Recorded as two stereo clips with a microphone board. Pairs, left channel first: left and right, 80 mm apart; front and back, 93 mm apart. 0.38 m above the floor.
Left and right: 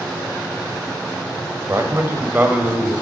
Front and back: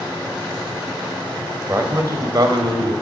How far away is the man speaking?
About 1.4 m.